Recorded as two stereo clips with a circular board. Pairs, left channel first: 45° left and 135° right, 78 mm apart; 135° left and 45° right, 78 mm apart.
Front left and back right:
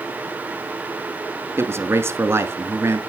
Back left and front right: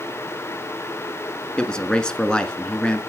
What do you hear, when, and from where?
1.6 s a man speaking: 155° right, 1.2 m